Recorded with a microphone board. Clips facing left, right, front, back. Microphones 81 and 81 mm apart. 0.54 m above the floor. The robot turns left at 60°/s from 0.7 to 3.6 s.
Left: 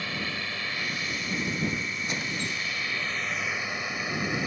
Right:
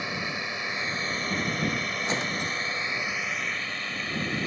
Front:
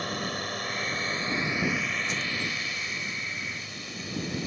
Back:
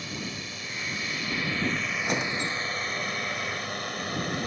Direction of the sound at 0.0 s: 20° right.